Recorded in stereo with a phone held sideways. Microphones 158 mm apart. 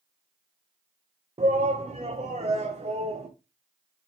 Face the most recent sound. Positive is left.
turn(degrees=-45)  # may be behind; listen again after turning